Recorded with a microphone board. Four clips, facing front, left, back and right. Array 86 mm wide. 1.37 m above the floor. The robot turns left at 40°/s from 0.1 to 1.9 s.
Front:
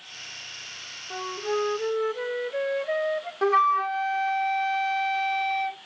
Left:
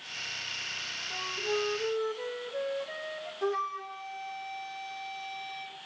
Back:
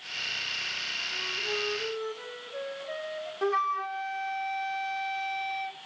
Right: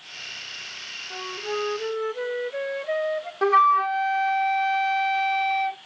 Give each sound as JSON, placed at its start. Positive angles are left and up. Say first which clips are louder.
{"t": 1.1, "sound": "a flute", "louder": "right 3 dB, front 8 dB", "azimuth_deg": -15, "distance_m": 0.7}
{"t": 3.4, "sound": "a flute", "louder": "right 14 dB, front 7 dB", "azimuth_deg": -65, "distance_m": 0.5}